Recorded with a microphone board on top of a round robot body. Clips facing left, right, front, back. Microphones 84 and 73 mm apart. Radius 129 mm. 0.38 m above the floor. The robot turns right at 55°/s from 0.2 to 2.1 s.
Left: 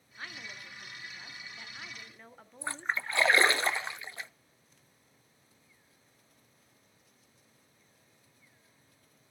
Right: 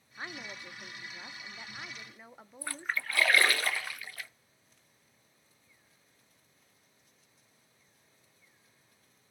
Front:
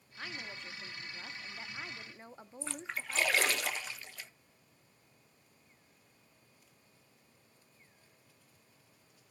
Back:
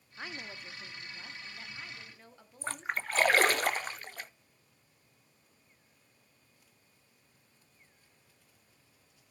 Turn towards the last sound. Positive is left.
turn(degrees=150)